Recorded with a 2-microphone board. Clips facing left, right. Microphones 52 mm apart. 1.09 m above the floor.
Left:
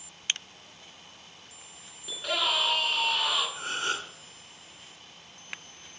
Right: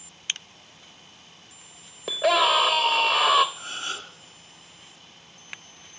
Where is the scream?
80° right, 0.7 m.